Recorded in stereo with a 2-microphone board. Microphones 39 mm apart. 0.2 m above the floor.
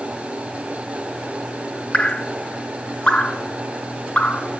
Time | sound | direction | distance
1.9 | dripping | 25° left (ahead or behind) | 1.5 m